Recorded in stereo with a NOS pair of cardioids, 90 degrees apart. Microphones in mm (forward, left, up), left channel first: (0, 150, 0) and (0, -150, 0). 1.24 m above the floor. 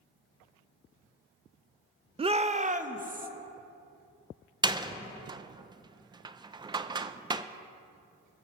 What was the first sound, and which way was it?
A shout, 20° right.